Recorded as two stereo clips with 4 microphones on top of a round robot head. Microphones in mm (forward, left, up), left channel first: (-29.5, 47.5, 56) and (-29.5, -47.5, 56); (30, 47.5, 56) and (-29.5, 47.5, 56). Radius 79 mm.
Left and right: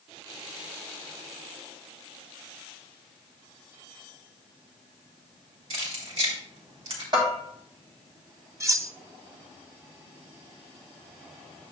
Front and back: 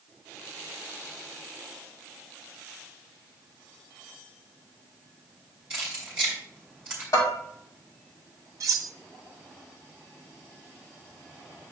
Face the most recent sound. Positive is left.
turn(degrees=-150)